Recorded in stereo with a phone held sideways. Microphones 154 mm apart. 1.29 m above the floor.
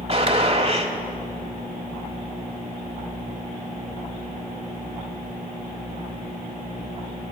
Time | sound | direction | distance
0.1 | a gunshot | 40° right (ahead or behind) | 1.3 m